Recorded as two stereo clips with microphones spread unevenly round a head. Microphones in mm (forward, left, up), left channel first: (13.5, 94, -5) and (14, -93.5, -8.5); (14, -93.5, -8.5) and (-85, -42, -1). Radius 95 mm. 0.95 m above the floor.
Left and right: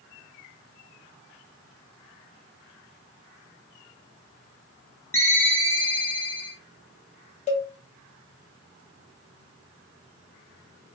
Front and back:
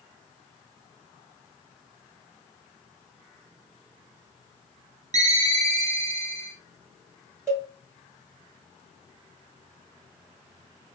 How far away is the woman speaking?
No woman speaking in this recording.